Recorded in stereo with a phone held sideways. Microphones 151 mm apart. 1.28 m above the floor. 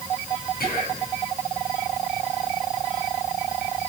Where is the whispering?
85° left, 8.5 m.